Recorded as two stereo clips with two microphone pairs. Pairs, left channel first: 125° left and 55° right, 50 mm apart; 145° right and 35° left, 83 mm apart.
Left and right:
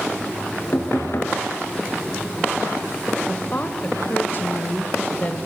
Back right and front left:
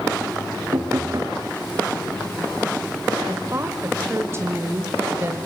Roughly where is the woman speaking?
Left.